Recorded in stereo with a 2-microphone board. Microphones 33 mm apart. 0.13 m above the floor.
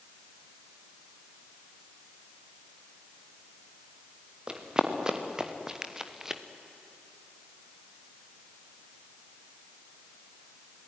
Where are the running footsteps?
25° right (ahead or behind), 3.5 m; by 6.4 s 10° right (ahead or behind), 1.9 m.